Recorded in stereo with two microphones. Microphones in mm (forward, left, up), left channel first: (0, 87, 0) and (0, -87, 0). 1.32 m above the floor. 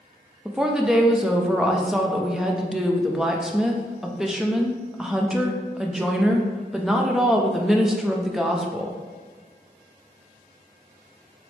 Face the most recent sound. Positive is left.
turn(degrees=-5)  # may be behind; listen again after turning